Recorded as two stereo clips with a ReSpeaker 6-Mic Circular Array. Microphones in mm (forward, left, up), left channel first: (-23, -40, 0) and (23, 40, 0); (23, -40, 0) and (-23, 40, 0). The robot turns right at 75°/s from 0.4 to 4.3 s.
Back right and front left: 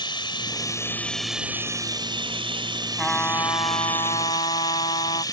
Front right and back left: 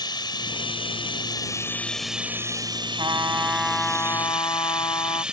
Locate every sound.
0.0 s running water: 95° right; by 5.3 s 160° right
3.0 s a trumpet: 155° left; by 5.2 s 105° right